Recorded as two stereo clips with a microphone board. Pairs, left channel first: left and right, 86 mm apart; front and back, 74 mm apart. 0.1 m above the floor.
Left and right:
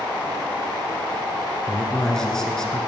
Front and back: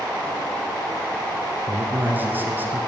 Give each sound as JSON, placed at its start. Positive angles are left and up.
{"t": 1.7, "sound": "a man speaking", "azimuth_deg": 165, "distance_m": 1.3}